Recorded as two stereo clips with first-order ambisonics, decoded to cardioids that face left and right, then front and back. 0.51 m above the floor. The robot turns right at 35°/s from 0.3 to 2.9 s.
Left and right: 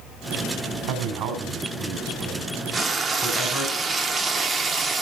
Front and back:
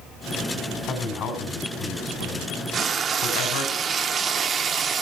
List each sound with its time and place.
0.9 s a man speaking: 70° right, 3 m; by 3.7 s straight ahead, 3 m
2.7 s frying: 145° right, 0.6 m; by 5.0 s 140° right, 0.6 m